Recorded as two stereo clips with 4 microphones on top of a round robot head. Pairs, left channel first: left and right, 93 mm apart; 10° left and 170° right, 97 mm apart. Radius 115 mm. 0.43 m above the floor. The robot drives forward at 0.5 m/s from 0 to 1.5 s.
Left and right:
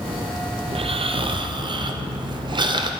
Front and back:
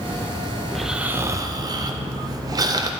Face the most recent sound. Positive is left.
turn(degrees=-125)